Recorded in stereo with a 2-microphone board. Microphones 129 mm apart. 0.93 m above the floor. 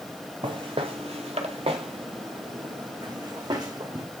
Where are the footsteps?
40° right (ahead or behind), 1.4 m; by 4.0 s 30° right (ahead or behind), 3 m.